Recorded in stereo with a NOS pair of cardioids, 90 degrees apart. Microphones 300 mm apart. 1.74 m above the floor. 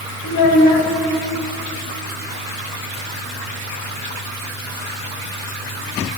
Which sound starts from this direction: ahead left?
A child speaking, at 0.2 s.